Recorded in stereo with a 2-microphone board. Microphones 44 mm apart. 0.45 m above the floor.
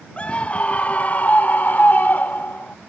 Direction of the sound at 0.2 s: 25° left (ahead or behind).